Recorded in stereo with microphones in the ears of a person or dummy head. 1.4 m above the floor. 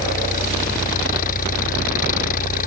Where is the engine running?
50° left (ahead or behind).